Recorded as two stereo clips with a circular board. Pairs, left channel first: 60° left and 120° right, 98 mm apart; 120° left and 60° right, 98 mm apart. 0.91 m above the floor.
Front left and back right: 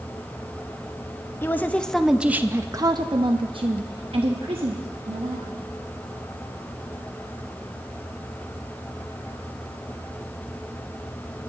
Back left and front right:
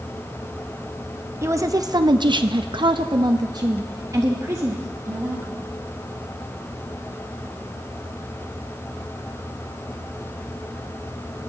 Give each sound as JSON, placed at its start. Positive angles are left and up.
{"t": 1.4, "sound": "a woman speaking", "azimuth_deg": -5, "distance_m": 0.8}